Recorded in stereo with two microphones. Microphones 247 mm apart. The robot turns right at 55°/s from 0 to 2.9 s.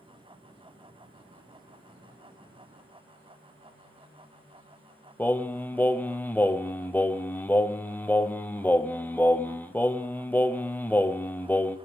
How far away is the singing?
About 0.6 m.